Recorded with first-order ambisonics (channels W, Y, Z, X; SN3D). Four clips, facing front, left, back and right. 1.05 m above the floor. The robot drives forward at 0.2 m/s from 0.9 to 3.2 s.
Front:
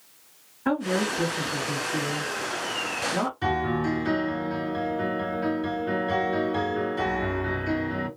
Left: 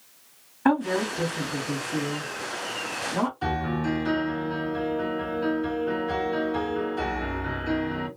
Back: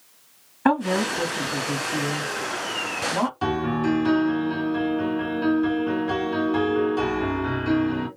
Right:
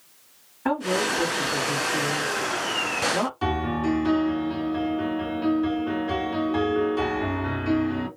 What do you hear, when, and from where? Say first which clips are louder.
0.7 s a woman speaking: left 1 dB, back 4 dB; 165° left, 2.5 m
3.4 s a piano: right 2 dB, back 2 dB; 155° right, 3 m